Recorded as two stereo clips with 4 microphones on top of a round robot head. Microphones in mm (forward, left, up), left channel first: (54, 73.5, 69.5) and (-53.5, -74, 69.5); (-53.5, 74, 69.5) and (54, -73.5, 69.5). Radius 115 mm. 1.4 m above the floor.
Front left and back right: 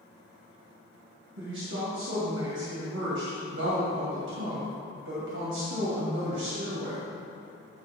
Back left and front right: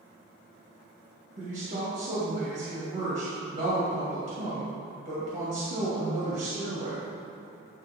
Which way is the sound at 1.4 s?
105° right.